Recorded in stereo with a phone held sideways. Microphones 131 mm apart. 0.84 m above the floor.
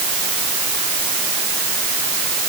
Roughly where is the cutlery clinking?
No cutlery clinking in this recording.